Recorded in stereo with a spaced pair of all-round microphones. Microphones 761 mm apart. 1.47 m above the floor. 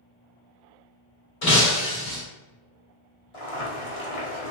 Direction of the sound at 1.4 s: 55° left (ahead or behind).